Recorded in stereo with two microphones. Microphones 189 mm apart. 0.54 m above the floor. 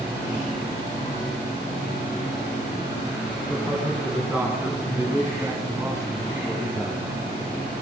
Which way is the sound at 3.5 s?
Centre (ahead or behind).